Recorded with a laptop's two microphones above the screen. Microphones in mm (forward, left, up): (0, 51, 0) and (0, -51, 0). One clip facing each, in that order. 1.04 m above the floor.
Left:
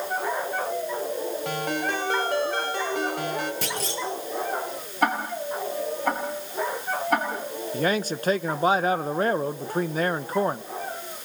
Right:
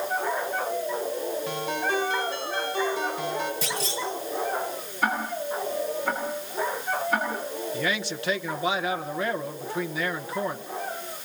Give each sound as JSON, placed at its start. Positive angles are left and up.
{"t": 1.4, "sound": "a ringtone", "side_deg": 75, "distance_m": 5.0}
{"t": 3.6, "sound": "a clunk", "side_deg": 65, "distance_m": 4.5}
{"t": 5.0, "sound": "ticking", "side_deg": 70, "distance_m": 7.0}
{"t": 7.7, "sound": "a man speaking", "side_deg": 40, "distance_m": 0.8}